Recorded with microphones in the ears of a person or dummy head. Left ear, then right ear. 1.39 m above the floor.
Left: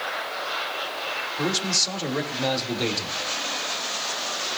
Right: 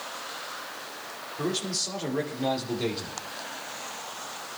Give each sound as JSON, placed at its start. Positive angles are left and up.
{"t": 1.4, "sound": "a man speaking", "side_deg": 35, "distance_m": 2.5}